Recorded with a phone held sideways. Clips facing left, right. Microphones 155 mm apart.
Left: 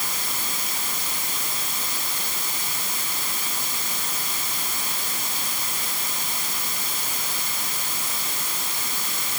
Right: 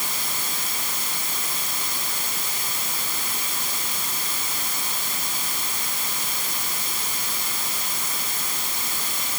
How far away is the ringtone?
I don't hear a ringtone.